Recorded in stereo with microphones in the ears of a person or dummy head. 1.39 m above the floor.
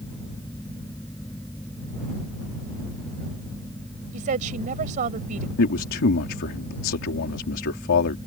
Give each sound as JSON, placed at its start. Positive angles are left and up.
{"t": 0.0, "sound": "a fan", "side_deg": 10}
{"t": 4.1, "sound": "a woman speaking", "side_deg": -40}
{"t": 5.6, "sound": "a man speaking", "side_deg": 65}